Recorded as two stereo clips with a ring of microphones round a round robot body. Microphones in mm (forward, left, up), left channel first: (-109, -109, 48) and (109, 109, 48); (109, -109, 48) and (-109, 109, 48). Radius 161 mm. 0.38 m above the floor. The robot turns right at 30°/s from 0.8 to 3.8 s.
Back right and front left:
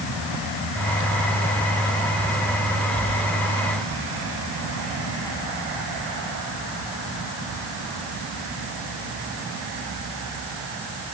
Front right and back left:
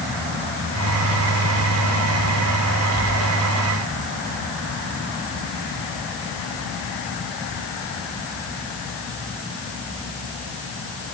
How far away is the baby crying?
No baby crying in this recording.